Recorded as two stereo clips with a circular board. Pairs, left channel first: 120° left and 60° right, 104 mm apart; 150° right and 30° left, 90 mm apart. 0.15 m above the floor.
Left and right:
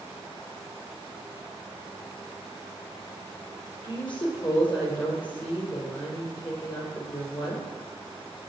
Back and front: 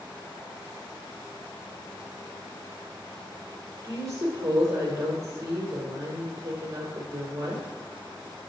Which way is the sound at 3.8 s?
85° left.